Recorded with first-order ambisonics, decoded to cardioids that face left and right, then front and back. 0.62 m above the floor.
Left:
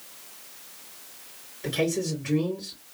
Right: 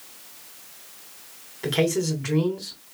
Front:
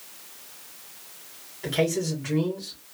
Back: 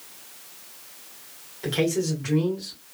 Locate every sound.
1.6 s a man speaking: 105° right, 2 m